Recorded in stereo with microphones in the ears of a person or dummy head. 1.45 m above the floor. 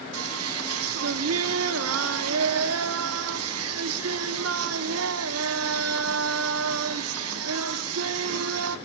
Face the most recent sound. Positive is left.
turn(degrees=-85)